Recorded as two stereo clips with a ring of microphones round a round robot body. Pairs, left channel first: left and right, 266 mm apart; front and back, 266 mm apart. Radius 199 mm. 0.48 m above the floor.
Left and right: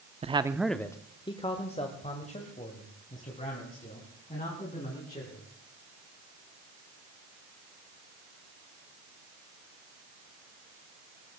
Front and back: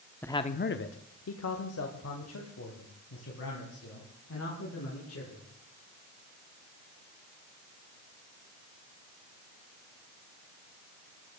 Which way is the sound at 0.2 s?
75° right.